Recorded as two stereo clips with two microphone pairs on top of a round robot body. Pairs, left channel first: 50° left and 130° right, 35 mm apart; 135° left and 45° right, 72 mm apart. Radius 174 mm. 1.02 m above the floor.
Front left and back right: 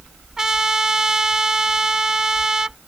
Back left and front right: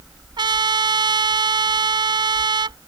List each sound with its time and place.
0.4 s a trumpet: 55° right